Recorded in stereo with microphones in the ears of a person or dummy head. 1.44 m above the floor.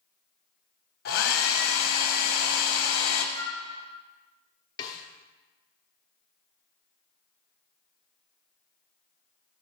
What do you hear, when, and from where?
1.1 s a hair dryer: 50° left (ahead or behind), 0.7 m
3.4 s a flute: 40° right (ahead or behind), 0.9 m
4.8 s a snare drum: 25° left (ahead or behind), 0.7 m